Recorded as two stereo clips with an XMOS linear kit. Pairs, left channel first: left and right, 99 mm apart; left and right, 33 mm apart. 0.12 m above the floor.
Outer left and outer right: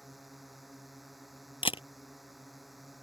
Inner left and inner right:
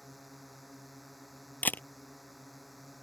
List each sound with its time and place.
0.0 s a drone: centre (ahead or behind)
1.6 s a camera shutter: 65° left (ahead or behind)